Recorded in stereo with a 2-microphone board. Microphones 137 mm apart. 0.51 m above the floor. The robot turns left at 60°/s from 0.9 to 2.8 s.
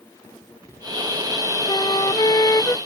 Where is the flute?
100° left; by 2.8 s 35° left.